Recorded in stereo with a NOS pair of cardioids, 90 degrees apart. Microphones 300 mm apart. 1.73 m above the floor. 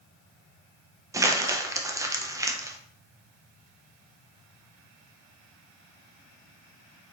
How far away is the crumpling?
About 0.6 m.